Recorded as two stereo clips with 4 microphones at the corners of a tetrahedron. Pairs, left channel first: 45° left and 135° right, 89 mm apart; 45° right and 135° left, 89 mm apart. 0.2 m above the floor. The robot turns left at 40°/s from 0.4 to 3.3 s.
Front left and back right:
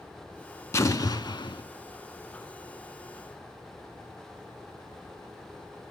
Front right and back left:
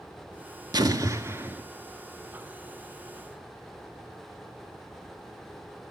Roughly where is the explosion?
Left.